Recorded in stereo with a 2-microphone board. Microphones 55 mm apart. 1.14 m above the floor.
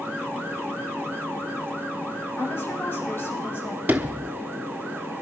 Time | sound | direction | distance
2.4 | a woman speaking | 45° left (ahead or behind) | 7 m
3.9 | a sliding door | 30° right (ahead or behind) | 1.3 m